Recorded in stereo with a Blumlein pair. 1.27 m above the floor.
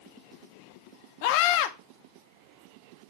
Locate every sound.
1.2 s a scream: 45° left, 0.9 m